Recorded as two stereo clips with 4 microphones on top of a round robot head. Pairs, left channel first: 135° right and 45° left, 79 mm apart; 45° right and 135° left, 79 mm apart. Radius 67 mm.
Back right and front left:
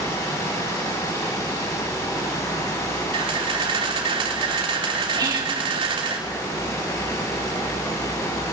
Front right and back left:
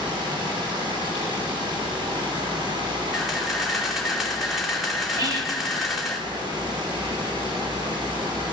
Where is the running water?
170° left, 7.5 m.